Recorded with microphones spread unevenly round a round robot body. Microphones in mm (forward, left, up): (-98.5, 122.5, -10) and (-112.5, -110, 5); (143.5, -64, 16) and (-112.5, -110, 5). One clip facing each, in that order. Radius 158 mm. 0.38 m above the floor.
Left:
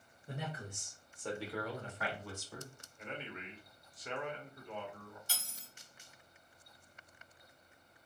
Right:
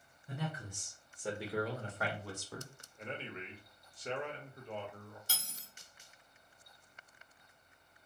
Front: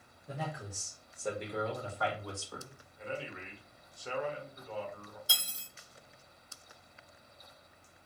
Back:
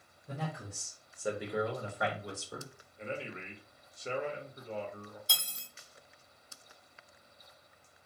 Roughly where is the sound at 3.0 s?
Behind right.